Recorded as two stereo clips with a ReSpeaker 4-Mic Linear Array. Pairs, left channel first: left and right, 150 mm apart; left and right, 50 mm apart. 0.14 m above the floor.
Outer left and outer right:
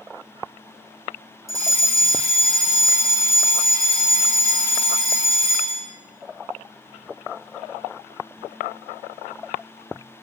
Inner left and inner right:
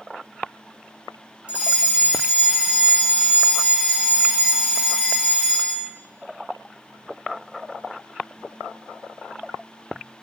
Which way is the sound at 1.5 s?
25° right (ahead or behind).